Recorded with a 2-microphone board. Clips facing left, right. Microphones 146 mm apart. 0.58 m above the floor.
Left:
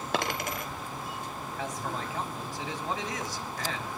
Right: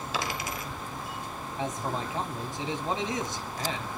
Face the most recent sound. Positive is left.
turn(degrees=-25)  # may be behind; listen again after turning